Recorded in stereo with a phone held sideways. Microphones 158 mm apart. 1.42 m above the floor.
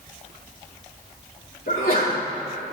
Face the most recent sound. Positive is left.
turn(degrees=70)  # may be behind; listen again after turning